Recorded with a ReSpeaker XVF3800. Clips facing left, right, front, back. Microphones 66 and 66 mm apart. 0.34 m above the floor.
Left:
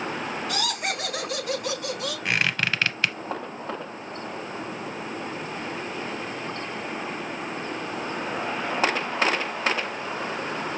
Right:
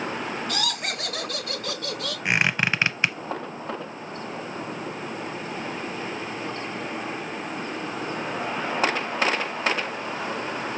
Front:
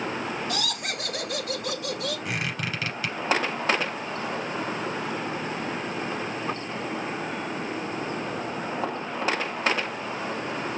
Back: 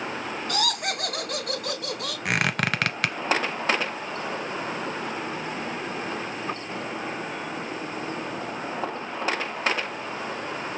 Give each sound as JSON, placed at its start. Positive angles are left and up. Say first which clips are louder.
{"t": 0.5, "sound": "laughter", "louder": "left 1 dB, back 3 dB", "azimuth_deg": 180, "distance_m": 3.5}
{"t": 2.2, "sound": "a squeak", "louder": "right 3 dB, back 5 dB", "azimuth_deg": -155, "distance_m": 0.5}